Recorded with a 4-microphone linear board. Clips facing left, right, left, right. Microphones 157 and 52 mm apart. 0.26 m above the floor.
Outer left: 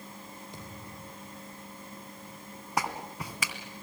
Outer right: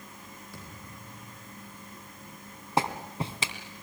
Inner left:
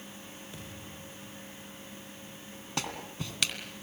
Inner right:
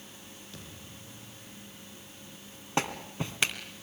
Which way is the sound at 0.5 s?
20° left (ahead or behind).